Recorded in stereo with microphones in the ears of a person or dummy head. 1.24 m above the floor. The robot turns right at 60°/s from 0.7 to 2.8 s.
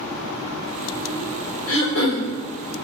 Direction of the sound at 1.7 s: 85° left.